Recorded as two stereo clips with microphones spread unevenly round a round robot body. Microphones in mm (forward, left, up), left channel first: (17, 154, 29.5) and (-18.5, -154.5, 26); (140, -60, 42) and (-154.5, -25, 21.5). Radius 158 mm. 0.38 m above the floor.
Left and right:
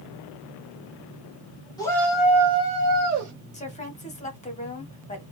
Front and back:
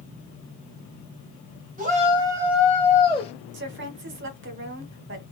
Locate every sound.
1.8 s a shout: 155° left, 1.5 m; by 3.3 s 75° right, 1.6 m
3.5 s a woman speaking: 145° left, 1.1 m